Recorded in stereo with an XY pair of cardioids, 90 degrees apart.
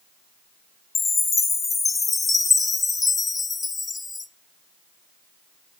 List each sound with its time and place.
0.9 s a chime: 35° left, 0.8 m